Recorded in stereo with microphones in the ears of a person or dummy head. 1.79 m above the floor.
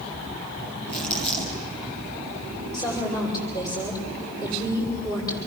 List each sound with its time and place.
0.9 s crumpling: 10° left (ahead or behind), 7.5 m
2.7 s a woman speaking: 25° left (ahead or behind), 8 m